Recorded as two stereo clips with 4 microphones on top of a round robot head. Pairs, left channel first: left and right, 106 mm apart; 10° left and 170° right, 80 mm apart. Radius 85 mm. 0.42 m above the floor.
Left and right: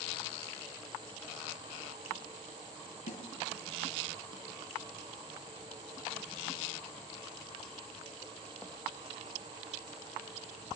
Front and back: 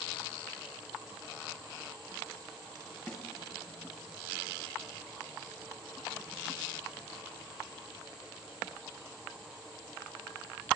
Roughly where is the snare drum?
Left.